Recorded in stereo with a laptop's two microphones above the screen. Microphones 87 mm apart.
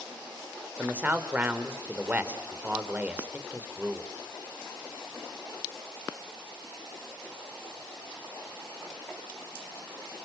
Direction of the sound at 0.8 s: 15° right (ahead or behind).